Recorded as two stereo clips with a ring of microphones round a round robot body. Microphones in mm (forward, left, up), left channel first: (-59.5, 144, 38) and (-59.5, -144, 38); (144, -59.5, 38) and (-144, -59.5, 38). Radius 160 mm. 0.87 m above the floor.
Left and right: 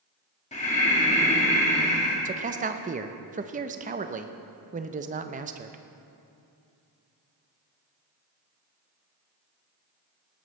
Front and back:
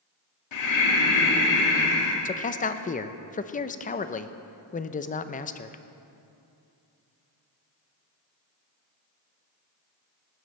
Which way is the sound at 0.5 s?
20° left.